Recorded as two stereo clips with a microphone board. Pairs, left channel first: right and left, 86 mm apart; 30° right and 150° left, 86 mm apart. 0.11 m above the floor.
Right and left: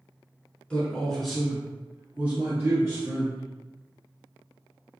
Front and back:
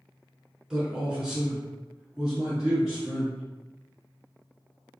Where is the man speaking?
145° right, 1.2 m; by 3.4 s 65° left, 1.5 m.